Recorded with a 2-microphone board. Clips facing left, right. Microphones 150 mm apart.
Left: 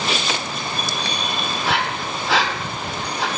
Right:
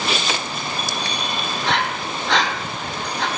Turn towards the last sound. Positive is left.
turn(degrees=5)  # may be behind; listen again after turning